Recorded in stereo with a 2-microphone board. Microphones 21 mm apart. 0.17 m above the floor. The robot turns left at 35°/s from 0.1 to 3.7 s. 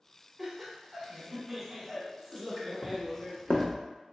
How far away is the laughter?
About 1.1 m.